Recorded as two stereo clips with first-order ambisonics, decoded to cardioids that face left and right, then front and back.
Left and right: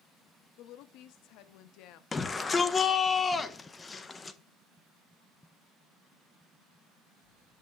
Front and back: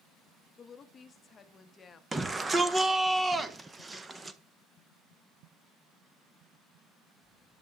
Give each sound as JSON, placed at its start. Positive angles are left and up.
{"t": 0.6, "sound": "a woman speaking", "azimuth_deg": 65, "distance_m": 0.7}
{"t": 2.1, "sound": "a shout", "azimuth_deg": 125, "distance_m": 0.5}